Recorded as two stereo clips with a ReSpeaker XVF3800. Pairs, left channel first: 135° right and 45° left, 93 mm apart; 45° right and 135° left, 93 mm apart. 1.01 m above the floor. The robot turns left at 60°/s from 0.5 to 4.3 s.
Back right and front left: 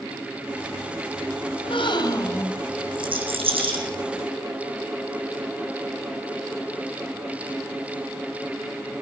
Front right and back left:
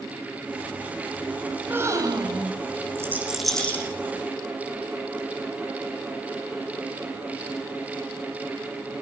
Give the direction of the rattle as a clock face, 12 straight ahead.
10 o'clock.